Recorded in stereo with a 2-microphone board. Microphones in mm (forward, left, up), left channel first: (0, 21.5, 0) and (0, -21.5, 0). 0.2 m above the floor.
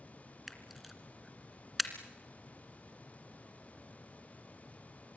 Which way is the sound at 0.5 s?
Centre (ahead or behind).